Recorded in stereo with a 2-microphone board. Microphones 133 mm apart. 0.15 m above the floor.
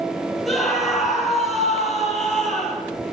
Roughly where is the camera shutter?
No camera shutter in this recording.